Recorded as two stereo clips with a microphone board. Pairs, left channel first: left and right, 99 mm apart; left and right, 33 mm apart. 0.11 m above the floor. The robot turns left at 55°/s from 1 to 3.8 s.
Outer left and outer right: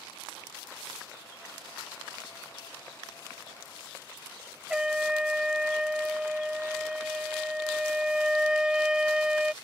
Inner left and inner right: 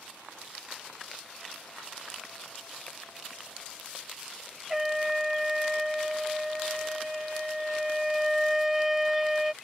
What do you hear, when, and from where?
4.7 s a trumpet: 10° right (ahead or behind)